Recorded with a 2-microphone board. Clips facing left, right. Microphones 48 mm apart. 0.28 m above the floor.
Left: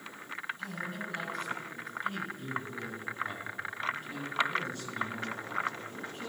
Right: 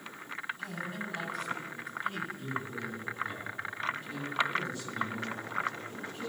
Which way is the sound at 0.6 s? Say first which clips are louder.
Even; 5° right (ahead or behind).